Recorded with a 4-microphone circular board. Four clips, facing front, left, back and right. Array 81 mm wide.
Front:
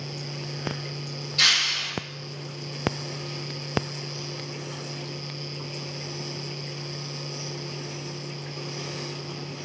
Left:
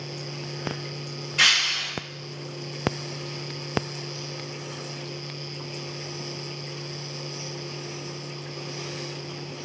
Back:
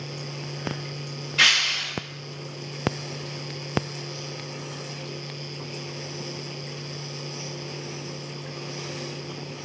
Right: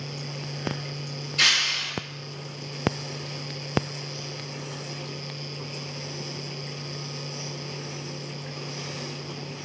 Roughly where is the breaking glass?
Behind left.